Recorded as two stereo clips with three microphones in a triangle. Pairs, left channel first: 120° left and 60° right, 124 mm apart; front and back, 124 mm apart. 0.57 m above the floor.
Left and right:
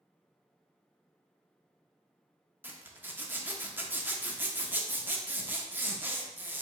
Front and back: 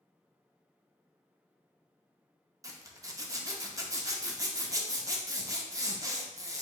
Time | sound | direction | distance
2.6 | a zipper | 130° right | 0.5 m